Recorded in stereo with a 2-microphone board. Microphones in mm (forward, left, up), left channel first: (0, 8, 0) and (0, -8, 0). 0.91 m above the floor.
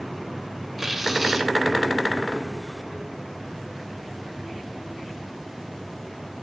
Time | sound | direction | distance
0.8 | tearing paper | 10° right (ahead or behind) | 3 m